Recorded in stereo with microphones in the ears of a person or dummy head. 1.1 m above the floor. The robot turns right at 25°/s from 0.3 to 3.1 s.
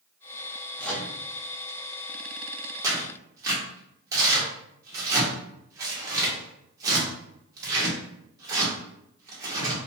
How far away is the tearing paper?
About 0.9 m.